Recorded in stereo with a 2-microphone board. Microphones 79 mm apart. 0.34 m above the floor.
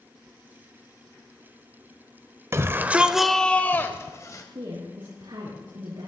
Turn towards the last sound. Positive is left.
turn(degrees=-80)